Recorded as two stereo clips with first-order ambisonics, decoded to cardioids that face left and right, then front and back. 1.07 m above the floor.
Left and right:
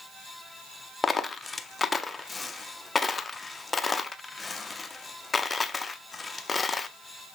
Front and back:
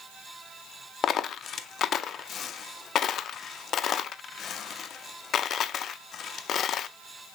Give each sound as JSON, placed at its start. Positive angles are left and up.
{"t": 1.0, "sound": "a dropped coin", "azimuth_deg": 25, "distance_m": 0.6}